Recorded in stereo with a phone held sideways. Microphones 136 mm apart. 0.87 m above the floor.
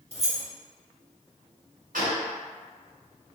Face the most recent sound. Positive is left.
turn(degrees=-80)